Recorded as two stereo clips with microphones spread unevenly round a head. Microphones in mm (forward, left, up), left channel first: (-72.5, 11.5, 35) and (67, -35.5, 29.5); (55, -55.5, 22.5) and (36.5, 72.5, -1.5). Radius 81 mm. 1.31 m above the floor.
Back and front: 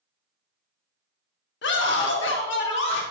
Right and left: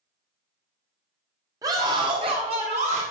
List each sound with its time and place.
1.6 s a scream: 170° left, 2 m; by 3.0 s 150° left, 3 m